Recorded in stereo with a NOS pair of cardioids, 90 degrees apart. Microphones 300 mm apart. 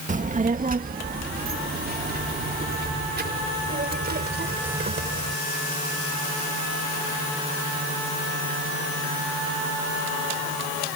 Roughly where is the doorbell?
I don't hear a doorbell.